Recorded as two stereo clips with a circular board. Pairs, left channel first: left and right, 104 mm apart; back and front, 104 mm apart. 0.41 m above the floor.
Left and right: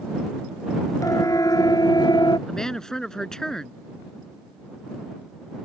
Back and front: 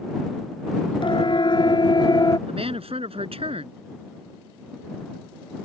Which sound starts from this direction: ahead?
A woman speaking, at 2.5 s.